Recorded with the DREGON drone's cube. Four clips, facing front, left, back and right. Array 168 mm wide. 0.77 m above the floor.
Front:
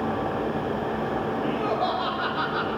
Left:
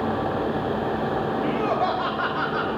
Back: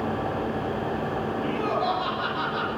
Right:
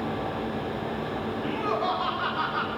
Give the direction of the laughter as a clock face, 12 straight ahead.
9 o'clock.